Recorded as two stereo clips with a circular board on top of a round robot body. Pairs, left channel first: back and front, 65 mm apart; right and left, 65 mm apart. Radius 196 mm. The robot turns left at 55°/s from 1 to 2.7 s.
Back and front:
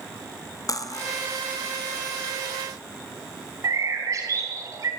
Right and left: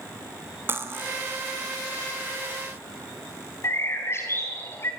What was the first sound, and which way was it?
Cutlery clinking, 150° left.